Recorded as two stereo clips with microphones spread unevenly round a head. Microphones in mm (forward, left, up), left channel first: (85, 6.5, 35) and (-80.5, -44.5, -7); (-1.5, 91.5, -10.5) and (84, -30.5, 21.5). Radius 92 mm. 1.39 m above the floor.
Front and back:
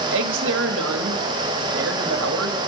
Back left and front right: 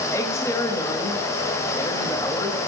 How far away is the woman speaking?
About 2.5 m.